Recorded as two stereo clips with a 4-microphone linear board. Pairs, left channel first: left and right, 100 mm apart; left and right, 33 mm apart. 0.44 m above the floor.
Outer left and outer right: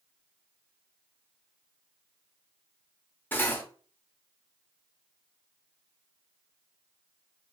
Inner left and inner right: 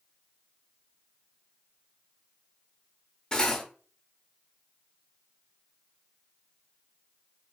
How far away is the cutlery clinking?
About 0.7 m.